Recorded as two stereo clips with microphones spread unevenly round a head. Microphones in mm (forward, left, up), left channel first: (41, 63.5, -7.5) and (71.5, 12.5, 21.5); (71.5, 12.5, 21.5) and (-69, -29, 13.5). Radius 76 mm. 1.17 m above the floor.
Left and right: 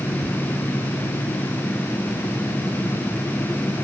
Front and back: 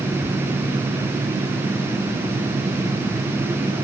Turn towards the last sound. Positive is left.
turn(degrees=120)